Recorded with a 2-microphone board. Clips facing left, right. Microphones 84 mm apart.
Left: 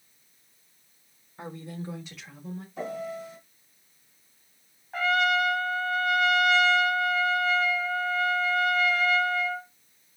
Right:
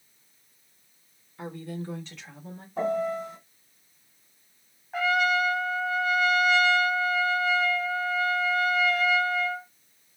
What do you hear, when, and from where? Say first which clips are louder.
1.4 s a woman speaking: right 2 dB; 30° left (ahead or behind), 1.2 m; by 2.7 s 10° right (ahead or behind), 1.2 m
2.8 s a piano: right 8 dB; 45° right (ahead or behind), 1.6 m
4.9 s a trumpet: even; 5° right (ahead or behind), 0.7 m